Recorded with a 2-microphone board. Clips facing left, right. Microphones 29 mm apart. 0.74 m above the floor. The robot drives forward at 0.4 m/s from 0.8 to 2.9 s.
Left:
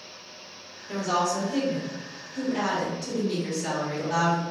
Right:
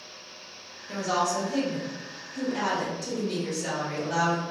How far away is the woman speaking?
About 0.7 m.